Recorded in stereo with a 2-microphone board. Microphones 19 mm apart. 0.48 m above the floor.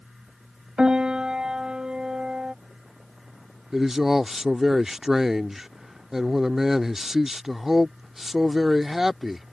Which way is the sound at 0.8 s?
45° right (ahead or behind).